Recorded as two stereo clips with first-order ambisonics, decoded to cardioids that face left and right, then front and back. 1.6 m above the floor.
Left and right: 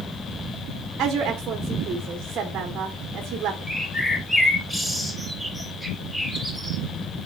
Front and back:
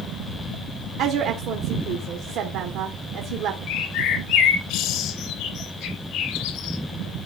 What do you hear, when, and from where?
1.0 s a woman speaking: 145° right, 1.3 m
3.7 s a bird: 5° left, 1.2 m